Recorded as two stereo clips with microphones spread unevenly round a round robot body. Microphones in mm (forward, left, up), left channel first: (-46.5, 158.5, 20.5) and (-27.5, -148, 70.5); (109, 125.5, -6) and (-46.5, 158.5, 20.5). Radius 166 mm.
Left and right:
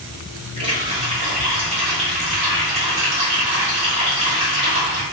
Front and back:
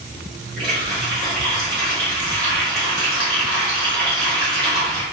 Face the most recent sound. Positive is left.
turn(degrees=-160)